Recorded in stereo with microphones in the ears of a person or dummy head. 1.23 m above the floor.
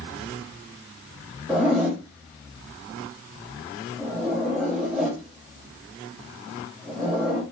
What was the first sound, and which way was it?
A zipper, 5° right (ahead or behind).